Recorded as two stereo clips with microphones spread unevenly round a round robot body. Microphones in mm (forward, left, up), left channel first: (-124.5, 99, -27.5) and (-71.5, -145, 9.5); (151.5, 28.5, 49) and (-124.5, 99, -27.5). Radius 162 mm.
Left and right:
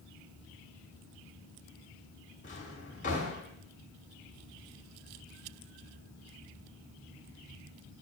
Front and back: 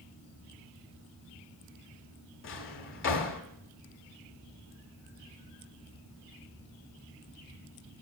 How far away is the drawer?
About 1.0 m.